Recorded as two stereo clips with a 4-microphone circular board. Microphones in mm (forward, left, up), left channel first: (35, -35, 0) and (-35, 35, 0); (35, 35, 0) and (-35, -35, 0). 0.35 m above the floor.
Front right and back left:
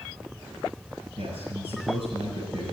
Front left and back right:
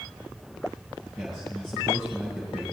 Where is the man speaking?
135° left, 5.5 m.